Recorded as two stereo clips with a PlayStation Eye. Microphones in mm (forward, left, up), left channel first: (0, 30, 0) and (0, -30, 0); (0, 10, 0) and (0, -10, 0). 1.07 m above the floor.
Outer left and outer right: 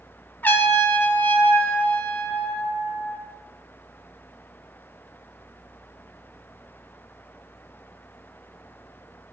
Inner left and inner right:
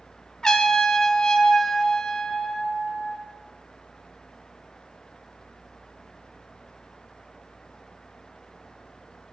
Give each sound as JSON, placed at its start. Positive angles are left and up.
{"t": 0.4, "sound": "a trumpet", "side_deg": 35, "distance_m": 0.9}